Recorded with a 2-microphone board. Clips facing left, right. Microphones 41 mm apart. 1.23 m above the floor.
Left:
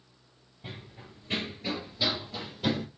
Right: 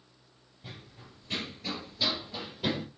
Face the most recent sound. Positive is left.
turn(degrees=-10)  # may be behind; listen again after turning